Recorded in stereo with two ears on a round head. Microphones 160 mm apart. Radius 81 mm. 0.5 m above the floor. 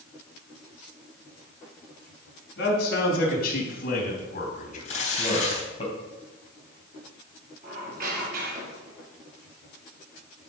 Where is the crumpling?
35° left (ahead or behind), 5 m.